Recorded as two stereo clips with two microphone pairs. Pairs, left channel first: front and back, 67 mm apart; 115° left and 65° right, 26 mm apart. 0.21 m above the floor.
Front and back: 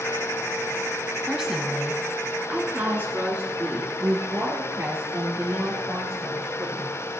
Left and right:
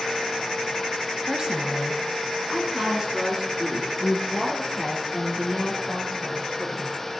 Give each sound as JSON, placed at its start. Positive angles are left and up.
{"t": 1.3, "sound": "a woman speaking", "azimuth_deg": -100, "distance_m": 1.2}